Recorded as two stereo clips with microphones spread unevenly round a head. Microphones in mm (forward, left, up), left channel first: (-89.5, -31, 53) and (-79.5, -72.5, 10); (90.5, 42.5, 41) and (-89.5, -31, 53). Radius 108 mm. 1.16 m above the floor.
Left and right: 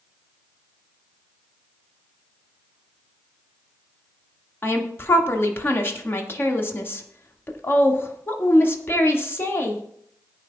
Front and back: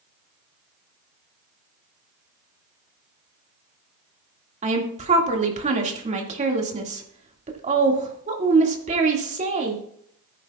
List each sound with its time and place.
4.6 s a woman speaking: 145° left, 2 m